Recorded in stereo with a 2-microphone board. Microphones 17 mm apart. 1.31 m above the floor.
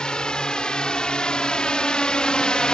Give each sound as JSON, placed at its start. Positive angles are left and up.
{"t": 0.0, "sound": "a drone", "side_deg": 60}